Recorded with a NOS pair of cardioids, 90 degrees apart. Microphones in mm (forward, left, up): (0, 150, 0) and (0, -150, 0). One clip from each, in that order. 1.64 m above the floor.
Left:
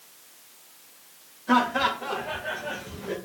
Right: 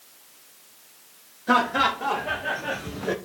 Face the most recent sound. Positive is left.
turn(degrees=-65)